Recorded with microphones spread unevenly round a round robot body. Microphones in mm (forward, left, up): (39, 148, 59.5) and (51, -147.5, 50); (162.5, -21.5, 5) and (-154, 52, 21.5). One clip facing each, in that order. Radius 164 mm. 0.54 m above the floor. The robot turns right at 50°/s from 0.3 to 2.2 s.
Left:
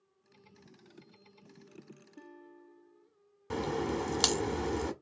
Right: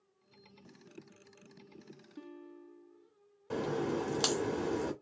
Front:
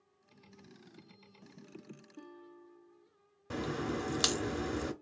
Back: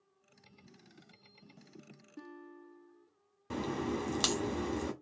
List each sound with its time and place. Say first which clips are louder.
2.2 s a guitar: right 5 dB, back 6 dB; 140° right, 1.3 m
3.5 s a crack: even, back 1 dB; 70° left, 0.9 m